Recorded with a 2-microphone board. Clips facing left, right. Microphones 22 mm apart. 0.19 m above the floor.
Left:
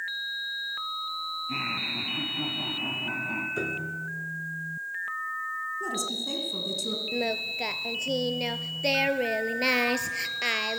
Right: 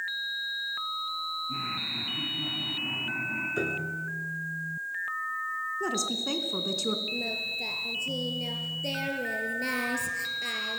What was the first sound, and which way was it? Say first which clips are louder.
Laughter: left 2 dB; 60° left (ahead or behind).